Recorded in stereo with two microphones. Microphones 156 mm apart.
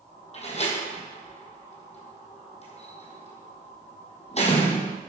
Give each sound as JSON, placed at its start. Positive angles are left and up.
{"t": 0.3, "sound": "a door slam", "side_deg": 45, "distance_m": 3.0}